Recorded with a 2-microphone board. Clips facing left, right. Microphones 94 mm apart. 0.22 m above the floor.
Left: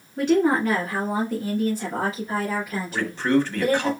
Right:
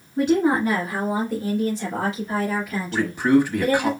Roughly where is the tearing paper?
No tearing paper in this recording.